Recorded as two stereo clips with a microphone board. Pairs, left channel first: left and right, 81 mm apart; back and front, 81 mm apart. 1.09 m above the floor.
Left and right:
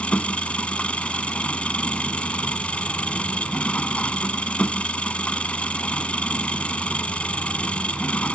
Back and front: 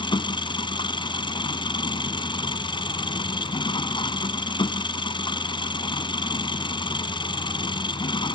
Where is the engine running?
165° left.